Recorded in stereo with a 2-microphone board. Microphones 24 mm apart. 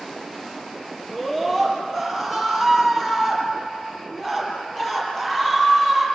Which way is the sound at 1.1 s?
10° left (ahead or behind).